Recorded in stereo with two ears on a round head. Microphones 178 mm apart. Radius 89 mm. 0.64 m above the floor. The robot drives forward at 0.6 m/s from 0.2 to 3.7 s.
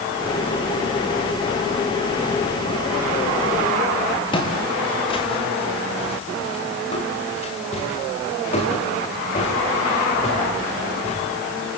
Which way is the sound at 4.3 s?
25° left (ahead or behind).